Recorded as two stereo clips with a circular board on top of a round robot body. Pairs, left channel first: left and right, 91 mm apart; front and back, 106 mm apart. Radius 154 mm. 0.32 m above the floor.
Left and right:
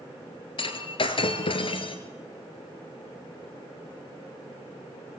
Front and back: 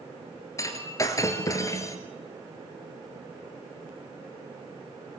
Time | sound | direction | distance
0.6 | breaking glass | 65° left | 1.7 m